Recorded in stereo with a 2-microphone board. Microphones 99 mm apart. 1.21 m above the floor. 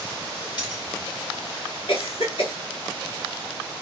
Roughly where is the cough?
Left.